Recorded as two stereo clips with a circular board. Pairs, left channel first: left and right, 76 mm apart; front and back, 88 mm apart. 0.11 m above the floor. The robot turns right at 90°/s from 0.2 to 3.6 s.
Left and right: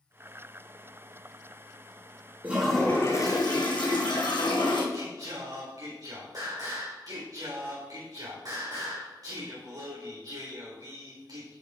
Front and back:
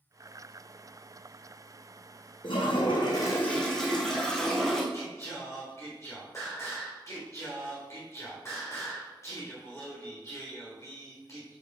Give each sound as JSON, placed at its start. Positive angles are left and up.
{"t": 2.4, "sound": "a toilet flushing", "azimuth_deg": -25, "distance_m": 2.5}
{"t": 4.9, "sound": "singing", "azimuth_deg": -55, "distance_m": 3.5}